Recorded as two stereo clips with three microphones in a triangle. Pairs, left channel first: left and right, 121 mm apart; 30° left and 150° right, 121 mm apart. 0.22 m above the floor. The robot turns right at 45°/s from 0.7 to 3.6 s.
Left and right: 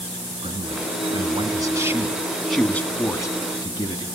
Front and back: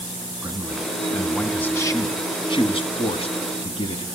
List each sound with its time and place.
0.4 s a man speaking: 80° right, 1.9 m; by 4.0 s 50° left, 1.9 m